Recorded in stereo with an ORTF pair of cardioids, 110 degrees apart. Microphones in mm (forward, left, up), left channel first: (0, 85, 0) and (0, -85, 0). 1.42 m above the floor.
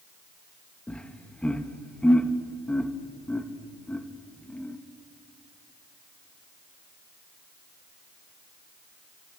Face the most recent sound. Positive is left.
turn(degrees=5)